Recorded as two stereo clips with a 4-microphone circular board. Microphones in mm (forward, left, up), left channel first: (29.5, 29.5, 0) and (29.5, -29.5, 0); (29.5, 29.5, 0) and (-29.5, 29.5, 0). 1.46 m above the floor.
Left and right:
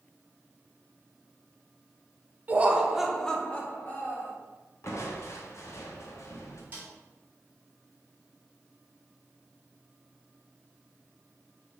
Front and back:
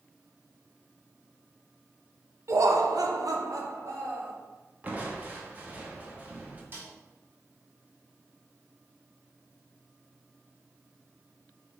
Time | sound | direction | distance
2.5 | laughter | 145° right | 0.6 m
4.8 | crushing | 115° left | 0.7 m
6.7 | a snare drum | 140° right | 1.5 m